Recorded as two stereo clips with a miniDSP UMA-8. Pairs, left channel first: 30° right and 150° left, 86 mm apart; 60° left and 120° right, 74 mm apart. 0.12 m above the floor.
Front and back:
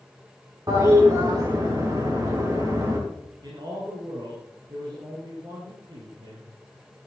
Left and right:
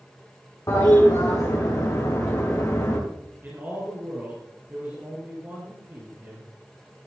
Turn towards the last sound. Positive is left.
turn(degrees=180)